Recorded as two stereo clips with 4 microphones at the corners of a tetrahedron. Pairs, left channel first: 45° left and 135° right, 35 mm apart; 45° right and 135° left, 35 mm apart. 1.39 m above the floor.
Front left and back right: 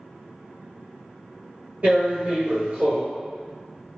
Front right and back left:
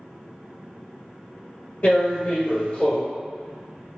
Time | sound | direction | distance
1.8 | tearing paper | 90° right | 1.8 m